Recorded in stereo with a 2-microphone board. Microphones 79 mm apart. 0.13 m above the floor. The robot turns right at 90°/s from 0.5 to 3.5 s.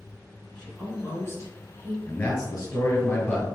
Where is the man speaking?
35° left, 1.5 m; by 3.5 s 160° left, 1.5 m.